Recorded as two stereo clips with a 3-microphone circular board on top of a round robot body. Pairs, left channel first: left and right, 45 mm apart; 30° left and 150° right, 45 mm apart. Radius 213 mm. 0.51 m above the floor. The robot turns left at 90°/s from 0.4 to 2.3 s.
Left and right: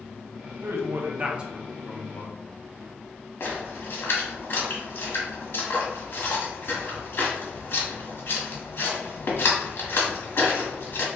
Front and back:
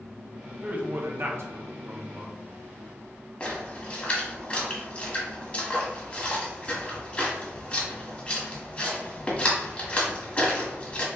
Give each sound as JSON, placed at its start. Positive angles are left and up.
{"t": 0.6, "sound": "a man speaking", "azimuth_deg": -85, "distance_m": 1.1}
{"t": 3.4, "sound": "a splash", "azimuth_deg": 90, "distance_m": 1.6}